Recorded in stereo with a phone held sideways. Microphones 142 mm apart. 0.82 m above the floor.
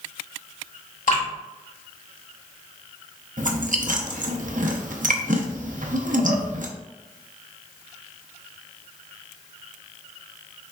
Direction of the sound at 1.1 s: 75° left (ahead or behind).